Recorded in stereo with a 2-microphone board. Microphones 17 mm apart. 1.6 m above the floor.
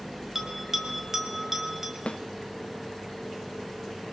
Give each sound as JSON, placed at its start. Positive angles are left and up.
{"t": 0.3, "sound": "a bell", "side_deg": -20, "distance_m": 3.0}
{"t": 2.1, "sound": "a snare drum", "side_deg": 90, "distance_m": 0.7}